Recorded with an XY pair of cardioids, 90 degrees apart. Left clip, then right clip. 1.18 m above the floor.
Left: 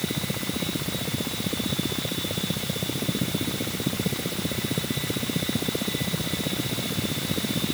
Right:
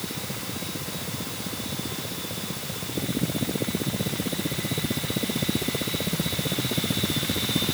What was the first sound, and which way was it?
Only background noise.